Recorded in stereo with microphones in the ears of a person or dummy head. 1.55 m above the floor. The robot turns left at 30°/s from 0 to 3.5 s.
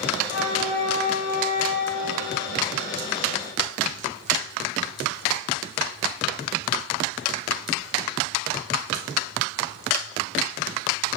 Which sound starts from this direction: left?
A flute, at 0.2 s.